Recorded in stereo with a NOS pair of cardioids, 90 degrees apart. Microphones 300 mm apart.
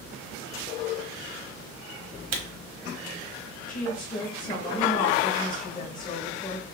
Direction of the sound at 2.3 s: 60° right.